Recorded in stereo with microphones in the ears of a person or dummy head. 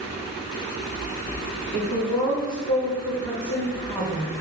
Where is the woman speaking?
50° left (ahead or behind), 1.0 m.